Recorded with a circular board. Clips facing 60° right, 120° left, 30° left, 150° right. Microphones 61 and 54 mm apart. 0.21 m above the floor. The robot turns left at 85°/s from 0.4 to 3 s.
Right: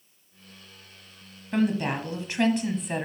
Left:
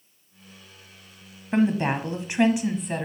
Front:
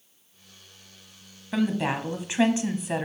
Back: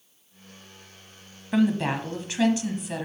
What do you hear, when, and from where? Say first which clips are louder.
1.5 s a woman speaking: left 3 dB, back 2 dB; 140° left, 1.0 m; by 3.1 s 15° left, 1.0 m